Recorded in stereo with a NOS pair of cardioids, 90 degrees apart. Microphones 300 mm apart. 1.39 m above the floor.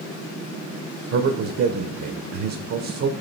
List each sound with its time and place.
1.1 s a man speaking: 55° right, 0.9 m